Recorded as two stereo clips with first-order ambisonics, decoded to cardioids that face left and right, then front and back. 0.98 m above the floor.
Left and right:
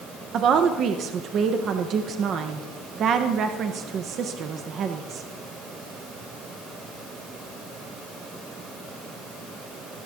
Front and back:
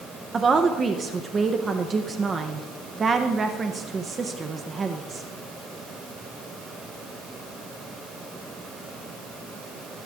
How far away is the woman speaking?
About 0.6 m.